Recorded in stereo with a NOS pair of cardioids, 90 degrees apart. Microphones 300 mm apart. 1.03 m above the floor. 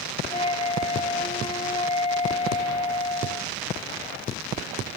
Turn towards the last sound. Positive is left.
turn(degrees=20)